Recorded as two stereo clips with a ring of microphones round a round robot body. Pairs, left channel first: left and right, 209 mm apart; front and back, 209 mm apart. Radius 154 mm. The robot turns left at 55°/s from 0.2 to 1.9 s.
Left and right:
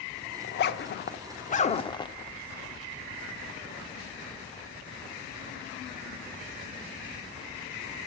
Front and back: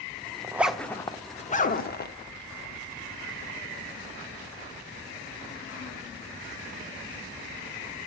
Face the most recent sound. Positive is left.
turn(degrees=25)